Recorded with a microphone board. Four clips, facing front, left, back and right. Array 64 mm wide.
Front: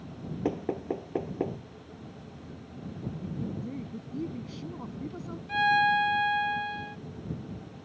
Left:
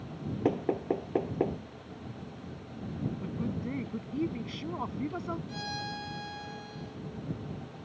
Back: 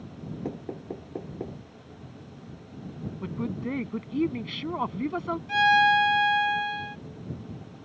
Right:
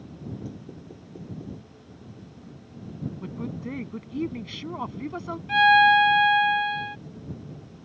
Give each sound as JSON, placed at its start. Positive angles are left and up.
{"t": 0.5, "sound": "knocking", "azimuth_deg": 65}
{"t": 3.2, "sound": "a woman speaking", "azimuth_deg": -170}
{"t": 5.5, "sound": "a violin", "azimuth_deg": -105}